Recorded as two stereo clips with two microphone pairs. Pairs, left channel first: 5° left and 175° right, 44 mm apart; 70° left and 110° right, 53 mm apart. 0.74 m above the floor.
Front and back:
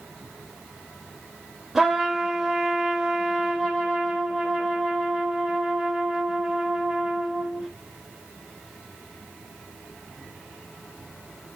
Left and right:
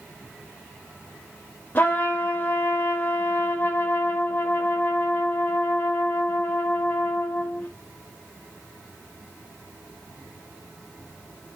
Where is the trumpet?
110° left, 0.7 m.